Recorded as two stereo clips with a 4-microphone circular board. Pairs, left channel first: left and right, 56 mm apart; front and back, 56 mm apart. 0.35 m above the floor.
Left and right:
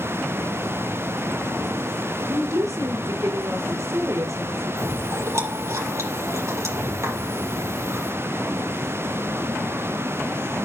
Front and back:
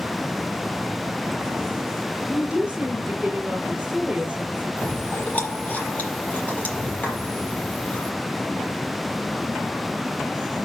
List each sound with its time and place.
2.3 s a woman speaking: 100° right, 4.5 m
4.8 s chewing: 60° right, 7.5 m